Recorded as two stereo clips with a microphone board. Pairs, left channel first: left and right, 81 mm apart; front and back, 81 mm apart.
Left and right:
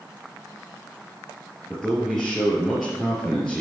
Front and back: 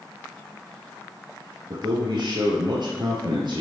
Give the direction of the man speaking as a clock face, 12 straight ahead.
6 o'clock.